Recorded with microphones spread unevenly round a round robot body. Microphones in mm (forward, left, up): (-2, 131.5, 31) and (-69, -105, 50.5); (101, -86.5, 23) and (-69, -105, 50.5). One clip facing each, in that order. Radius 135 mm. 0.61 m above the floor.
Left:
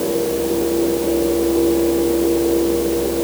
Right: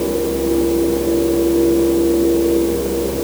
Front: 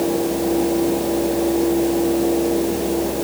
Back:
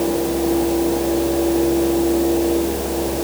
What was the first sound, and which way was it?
Only background noise.